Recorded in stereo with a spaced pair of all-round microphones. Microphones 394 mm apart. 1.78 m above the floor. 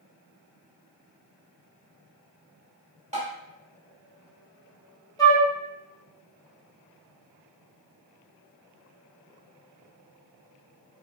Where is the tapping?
15° right (ahead or behind), 1.3 m.